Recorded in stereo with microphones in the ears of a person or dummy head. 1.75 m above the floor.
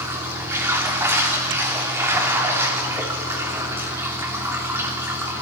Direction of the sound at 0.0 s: 10° right (ahead or behind).